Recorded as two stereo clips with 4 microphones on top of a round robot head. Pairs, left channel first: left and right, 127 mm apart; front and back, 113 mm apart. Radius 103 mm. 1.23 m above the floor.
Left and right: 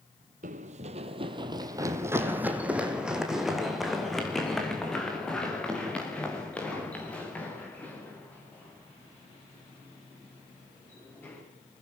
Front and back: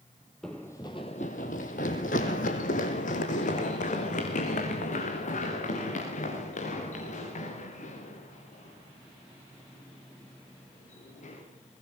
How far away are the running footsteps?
About 2 m.